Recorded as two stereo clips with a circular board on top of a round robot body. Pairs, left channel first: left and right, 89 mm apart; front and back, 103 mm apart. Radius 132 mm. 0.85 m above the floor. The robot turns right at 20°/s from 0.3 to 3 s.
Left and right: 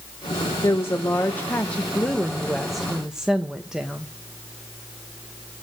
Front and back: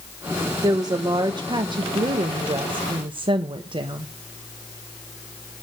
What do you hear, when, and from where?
0.6 s a woman speaking: 140° left, 1.1 m; by 4.1 s 175° right, 1.1 m